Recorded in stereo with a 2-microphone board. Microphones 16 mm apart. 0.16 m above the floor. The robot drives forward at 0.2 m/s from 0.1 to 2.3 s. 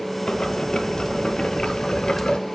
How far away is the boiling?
About 0.7 m.